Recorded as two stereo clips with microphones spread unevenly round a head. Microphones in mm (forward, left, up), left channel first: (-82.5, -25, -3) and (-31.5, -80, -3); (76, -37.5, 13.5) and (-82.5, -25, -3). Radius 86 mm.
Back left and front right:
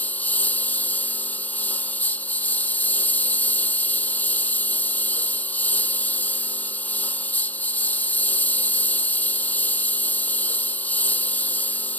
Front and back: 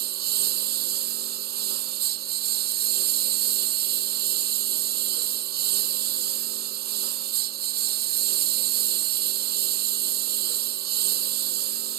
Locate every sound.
0.0 s a lawn mower: 160° right